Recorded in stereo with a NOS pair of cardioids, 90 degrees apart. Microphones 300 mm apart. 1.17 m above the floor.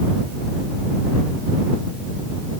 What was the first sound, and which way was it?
Only background noise.